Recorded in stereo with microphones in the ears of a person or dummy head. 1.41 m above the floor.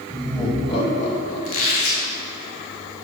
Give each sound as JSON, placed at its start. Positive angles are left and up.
{"t": 0.1, "sound": "laughter", "side_deg": 5, "distance_m": 2.0}
{"t": 1.4, "sound": "a squeak", "side_deg": 50, "distance_m": 1.4}